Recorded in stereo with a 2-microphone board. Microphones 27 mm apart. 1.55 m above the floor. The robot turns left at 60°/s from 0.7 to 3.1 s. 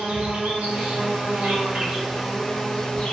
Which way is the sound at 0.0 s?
90° right.